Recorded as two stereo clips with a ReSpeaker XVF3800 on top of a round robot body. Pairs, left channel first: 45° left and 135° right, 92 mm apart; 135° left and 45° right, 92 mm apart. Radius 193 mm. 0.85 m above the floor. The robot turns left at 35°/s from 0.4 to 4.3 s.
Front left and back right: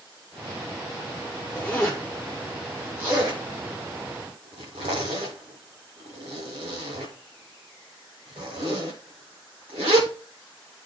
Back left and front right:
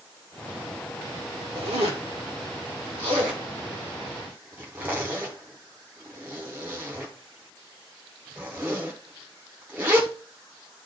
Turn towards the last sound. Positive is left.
turn(degrees=-115)